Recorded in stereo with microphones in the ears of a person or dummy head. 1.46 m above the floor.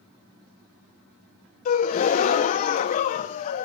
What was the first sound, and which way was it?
A gasp, 40° left (ahead or behind).